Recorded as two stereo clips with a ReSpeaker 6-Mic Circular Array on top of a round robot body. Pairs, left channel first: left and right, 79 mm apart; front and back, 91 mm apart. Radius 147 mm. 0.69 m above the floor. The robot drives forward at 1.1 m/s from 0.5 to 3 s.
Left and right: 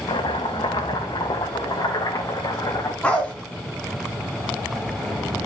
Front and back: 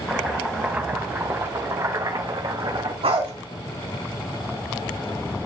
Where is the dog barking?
165° left, 3 m.